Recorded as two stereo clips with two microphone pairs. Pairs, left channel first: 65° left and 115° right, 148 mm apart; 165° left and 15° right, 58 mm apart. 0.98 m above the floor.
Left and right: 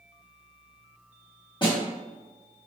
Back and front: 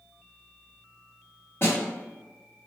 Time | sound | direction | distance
1.6 | a snare drum | 120° left | 1.3 m